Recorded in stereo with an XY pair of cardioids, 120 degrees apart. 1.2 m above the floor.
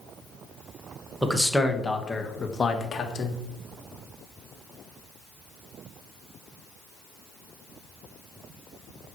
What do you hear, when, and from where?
1.2 s a man speaking: 10° right, 1.5 m; by 3.4 s 40° left, 1.8 m